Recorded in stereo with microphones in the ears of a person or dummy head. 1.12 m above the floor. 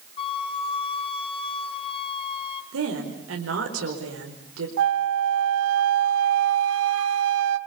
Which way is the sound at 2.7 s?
80° right.